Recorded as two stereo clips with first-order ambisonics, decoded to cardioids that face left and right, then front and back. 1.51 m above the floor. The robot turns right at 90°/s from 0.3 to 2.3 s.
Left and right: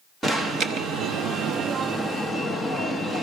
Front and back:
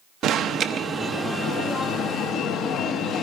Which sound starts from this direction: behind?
An alarm, at 0.2 s.